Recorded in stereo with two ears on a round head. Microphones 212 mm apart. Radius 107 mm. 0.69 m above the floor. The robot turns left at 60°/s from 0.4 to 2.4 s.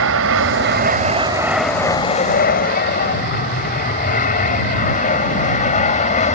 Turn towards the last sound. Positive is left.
turn(degrees=30)  # may be behind; listen again after turning